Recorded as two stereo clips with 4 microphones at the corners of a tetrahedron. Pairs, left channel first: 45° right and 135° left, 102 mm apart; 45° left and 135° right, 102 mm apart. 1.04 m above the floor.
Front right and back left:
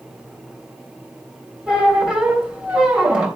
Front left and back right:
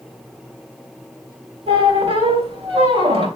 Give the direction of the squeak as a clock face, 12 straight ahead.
5 o'clock.